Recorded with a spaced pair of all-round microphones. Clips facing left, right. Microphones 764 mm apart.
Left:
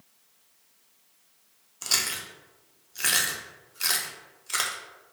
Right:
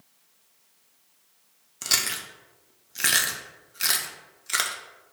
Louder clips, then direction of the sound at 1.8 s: Right 1 dB; 55° right (ahead or behind).